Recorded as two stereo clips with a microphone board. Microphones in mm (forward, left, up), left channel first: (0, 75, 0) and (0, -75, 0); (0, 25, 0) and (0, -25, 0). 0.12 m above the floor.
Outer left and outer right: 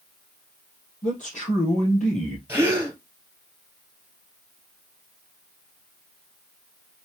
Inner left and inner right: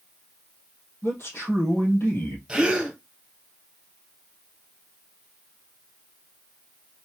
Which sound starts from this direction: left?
A man speaking, at 1.0 s.